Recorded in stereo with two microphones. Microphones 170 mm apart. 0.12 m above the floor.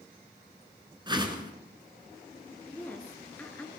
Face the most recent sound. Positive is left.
turn(degrees=10)  # may be behind; listen again after turning